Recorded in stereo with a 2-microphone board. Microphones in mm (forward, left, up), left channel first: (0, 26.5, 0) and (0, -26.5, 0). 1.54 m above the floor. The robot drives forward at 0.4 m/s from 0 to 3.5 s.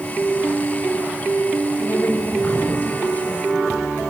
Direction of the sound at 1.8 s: 35° left (ahead or behind).